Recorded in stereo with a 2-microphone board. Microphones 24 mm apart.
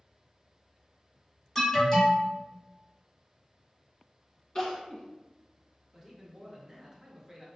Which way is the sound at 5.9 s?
15° right (ahead or behind).